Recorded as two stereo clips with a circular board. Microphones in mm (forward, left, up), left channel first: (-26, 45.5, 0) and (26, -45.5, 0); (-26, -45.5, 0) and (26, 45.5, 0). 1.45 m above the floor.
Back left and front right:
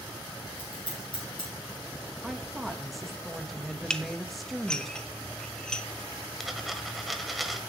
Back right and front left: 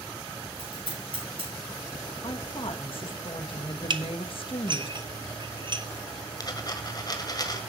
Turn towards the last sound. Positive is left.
turn(degrees=-150)